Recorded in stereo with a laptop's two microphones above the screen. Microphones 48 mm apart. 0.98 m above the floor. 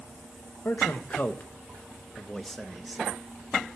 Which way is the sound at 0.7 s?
50° left (ahead or behind).